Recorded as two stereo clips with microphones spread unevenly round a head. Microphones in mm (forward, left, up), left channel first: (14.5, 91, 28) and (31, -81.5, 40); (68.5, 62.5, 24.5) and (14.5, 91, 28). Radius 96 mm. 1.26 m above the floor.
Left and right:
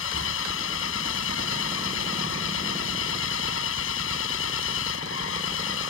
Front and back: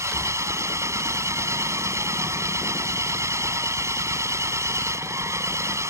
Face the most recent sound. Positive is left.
turn(degrees=120)